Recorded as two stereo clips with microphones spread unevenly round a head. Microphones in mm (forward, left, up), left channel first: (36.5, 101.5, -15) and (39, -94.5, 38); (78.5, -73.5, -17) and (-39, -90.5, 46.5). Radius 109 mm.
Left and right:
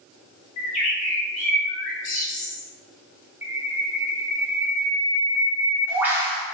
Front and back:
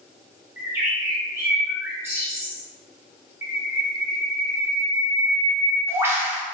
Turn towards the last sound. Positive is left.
turn(degrees=-155)